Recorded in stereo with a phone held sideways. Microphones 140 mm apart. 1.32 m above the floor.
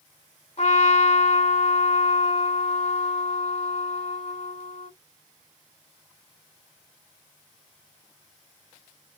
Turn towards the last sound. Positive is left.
turn(degrees=50)  # may be behind; listen again after turning